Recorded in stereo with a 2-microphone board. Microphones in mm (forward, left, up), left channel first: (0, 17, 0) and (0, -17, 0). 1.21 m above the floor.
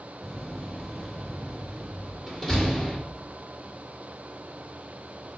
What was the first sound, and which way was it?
A door slam, 15° left (ahead or behind).